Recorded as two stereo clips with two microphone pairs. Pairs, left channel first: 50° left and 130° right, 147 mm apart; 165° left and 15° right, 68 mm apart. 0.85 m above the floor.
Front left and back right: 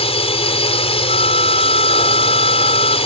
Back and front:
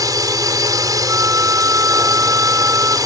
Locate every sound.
0.0 s a drone: 5° left
1.1 s a flute: 25° left